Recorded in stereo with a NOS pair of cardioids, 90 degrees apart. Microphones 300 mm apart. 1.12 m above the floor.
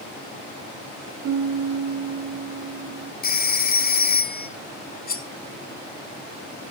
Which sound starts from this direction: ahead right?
A piano, at 1.2 s.